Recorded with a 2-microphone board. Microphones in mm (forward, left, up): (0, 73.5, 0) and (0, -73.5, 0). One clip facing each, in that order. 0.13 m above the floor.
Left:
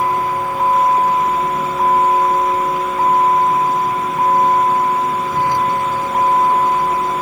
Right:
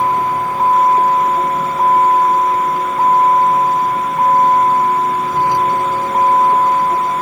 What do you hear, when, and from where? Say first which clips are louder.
0.0 s a vehicle: right 2 dB; 20° right (ahead or behind)